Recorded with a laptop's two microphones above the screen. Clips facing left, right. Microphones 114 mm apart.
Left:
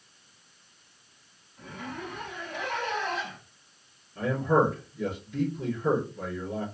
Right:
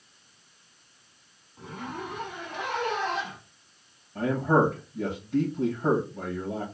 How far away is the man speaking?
About 2.5 m.